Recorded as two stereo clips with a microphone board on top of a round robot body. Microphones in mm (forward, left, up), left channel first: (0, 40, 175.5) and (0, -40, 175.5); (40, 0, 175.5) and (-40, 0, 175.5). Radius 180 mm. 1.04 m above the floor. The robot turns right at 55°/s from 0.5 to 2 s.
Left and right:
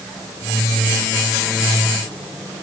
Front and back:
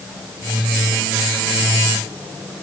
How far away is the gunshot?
I don't hear a gunshot.